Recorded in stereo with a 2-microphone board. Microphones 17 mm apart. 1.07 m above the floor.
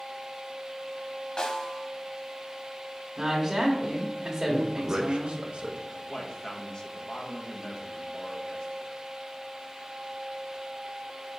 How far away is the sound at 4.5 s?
About 0.7 m.